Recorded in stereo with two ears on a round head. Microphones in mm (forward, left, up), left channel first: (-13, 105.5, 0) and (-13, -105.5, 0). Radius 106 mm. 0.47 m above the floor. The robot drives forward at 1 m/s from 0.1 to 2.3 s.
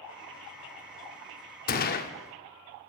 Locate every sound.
1.7 s a gunshot: 40° left (ahead or behind), 0.6 m; by 2.1 s 35° left (ahead or behind), 0.6 m